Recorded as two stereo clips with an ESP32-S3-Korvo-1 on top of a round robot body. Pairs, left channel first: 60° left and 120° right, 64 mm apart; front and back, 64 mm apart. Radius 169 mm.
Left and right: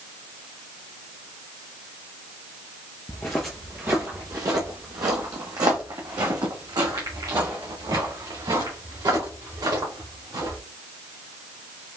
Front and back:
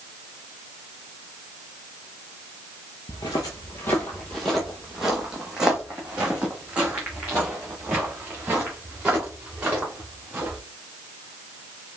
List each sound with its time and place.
3.1 s footsteps: 5° left, 0.5 m; by 10.6 s 110° right, 3.5 m